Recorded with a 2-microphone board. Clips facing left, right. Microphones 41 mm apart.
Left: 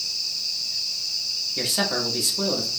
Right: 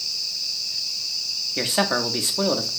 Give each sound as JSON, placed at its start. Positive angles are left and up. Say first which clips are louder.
{"t": 1.6, "sound": "a man speaking", "louder": "right 4 dB", "side_deg": -30, "distance_m": 0.8}